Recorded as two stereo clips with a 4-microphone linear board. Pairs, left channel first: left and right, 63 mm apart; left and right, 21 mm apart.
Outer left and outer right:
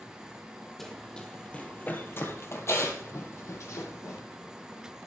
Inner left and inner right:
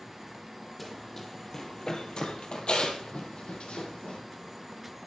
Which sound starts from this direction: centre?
Running footsteps, at 0.8 s.